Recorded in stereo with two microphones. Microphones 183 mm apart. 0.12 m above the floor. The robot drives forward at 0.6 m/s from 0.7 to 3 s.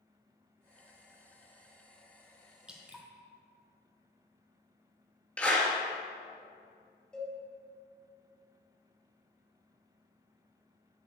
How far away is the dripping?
About 1.4 m.